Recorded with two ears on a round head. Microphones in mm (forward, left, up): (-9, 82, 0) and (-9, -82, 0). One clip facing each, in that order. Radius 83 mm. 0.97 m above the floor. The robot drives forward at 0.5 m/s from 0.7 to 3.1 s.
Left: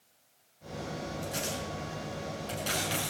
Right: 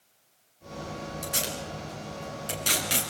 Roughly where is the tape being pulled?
Right.